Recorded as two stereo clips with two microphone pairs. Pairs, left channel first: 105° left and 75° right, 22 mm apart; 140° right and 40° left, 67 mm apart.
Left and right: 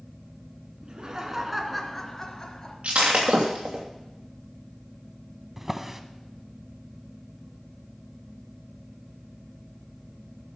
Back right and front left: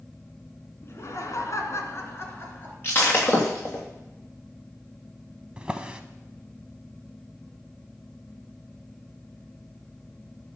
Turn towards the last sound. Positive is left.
turn(degrees=-15)